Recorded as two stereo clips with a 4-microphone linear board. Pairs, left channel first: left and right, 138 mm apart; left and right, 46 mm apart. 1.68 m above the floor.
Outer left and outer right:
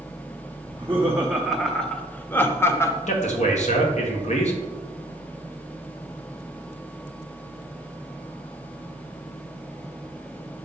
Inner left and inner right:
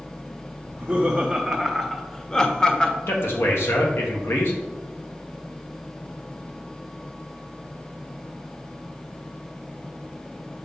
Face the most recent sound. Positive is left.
turn(degrees=60)  # may be behind; listen again after turning